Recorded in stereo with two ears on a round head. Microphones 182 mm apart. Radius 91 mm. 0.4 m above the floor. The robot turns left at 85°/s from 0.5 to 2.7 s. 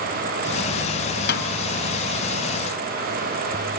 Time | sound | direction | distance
1.3 | a snare drum | 55° left (ahead or behind) | 3 m